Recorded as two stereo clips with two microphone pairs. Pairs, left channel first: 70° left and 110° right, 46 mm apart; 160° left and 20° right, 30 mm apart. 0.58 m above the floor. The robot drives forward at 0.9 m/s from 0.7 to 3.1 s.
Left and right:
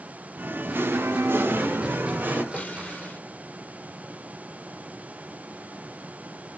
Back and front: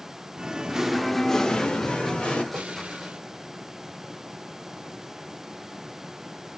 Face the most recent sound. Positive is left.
turn(degrees=20)